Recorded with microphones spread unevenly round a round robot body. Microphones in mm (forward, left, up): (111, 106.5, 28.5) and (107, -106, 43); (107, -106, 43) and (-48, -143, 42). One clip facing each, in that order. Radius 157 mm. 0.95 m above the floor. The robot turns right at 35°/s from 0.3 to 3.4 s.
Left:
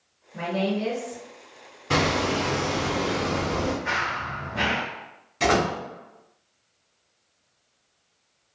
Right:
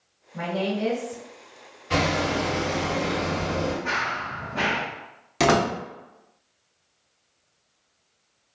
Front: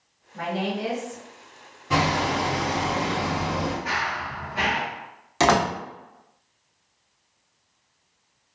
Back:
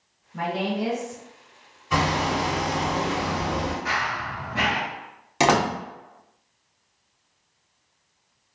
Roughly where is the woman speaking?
Behind.